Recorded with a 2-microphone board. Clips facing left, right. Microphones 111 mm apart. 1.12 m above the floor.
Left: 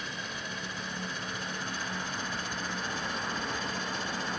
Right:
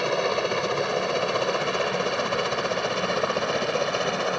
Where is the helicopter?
70° right (ahead or behind); by 4.4 s 65° right (ahead or behind).